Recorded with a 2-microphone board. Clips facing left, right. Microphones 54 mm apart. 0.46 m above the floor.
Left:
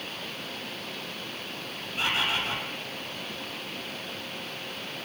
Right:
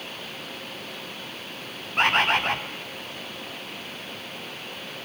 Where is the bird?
60° right (ahead or behind), 2 m.